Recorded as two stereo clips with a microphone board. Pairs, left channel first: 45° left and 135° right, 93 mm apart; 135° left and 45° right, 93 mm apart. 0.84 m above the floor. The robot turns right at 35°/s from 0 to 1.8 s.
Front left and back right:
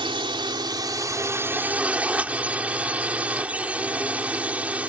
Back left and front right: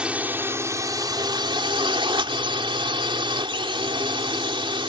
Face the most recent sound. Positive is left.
turn(degrees=-60)